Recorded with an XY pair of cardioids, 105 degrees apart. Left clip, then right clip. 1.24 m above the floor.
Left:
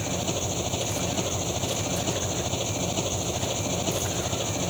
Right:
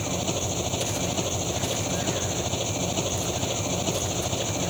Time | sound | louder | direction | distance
0.0 | an engine running | right 1 dB | 5° right | ?